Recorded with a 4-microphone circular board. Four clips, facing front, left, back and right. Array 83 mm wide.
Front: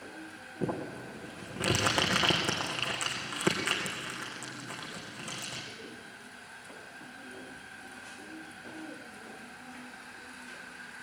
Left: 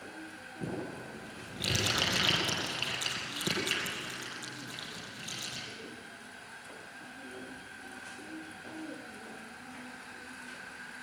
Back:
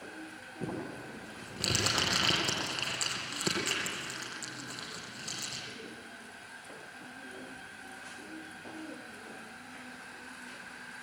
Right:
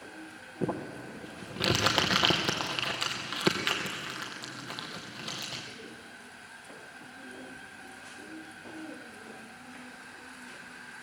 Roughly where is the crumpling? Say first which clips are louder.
Right 5 dB, front 4 dB; ahead right.